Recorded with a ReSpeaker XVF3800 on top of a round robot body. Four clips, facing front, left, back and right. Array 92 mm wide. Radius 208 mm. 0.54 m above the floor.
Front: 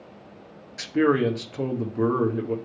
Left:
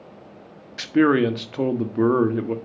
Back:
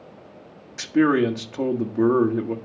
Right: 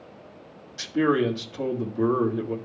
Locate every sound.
0.8 s a man speaking: 110° left, 1.9 m